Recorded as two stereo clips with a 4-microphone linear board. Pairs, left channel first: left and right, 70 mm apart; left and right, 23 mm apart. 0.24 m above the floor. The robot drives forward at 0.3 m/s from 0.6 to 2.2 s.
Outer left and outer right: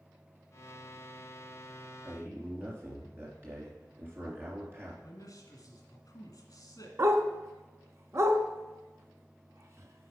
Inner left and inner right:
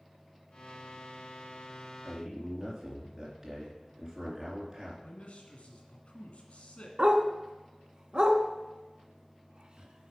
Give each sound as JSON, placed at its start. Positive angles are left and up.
{"t": 2.0, "sound": "a man speaking", "side_deg": -30, "distance_m": 3.0}
{"t": 5.0, "sound": "a man speaking", "side_deg": 55, "distance_m": 1.8}
{"t": 7.0, "sound": "a dog barking", "side_deg": -45, "distance_m": 0.7}